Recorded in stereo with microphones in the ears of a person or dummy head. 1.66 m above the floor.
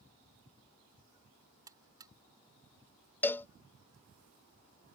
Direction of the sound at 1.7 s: 20° right (ahead or behind).